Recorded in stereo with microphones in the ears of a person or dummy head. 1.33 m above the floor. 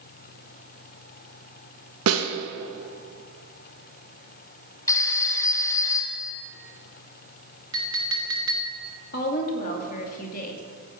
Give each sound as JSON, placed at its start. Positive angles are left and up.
{"t": 2.1, "sound": "a snare drum", "side_deg": -80, "distance_m": 1.9}
{"t": 4.9, "sound": "a phone ringing", "side_deg": 15, "distance_m": 1.1}
{"t": 7.7, "sound": "a clink", "side_deg": -20, "distance_m": 1.7}
{"t": 9.1, "sound": "a woman speaking", "side_deg": 45, "distance_m": 2.0}